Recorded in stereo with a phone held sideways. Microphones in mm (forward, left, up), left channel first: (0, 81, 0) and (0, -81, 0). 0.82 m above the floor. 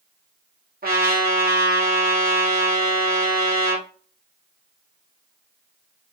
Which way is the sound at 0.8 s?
65° right (ahead or behind).